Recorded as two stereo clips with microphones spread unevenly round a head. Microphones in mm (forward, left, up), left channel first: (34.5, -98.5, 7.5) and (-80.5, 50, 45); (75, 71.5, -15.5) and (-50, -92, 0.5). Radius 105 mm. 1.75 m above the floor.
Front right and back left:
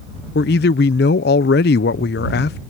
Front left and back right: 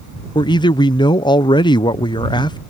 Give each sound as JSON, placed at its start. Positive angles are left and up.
{"t": 0.3, "sound": "a man speaking", "azimuth_deg": -15}